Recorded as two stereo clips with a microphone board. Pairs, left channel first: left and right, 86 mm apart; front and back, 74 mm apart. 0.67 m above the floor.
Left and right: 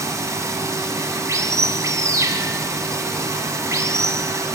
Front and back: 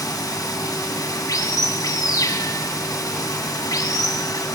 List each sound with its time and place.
0.0 s running water: 35° right, 3.5 m